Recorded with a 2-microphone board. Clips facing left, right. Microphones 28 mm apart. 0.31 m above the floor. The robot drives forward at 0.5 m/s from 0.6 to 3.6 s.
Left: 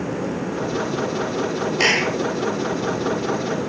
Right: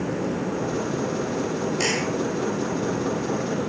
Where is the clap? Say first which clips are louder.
Left 9 dB; 35° left (ahead or behind).